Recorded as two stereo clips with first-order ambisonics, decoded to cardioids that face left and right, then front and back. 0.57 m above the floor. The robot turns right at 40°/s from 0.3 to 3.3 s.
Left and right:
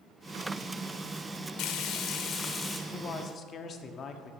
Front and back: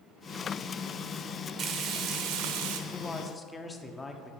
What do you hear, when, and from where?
1.6 s frying: 120° left, 0.9 m; by 2.8 s 170° left, 0.9 m
2.9 s a man speaking: 55° left, 0.6 m; by 4.3 s 70° left, 0.6 m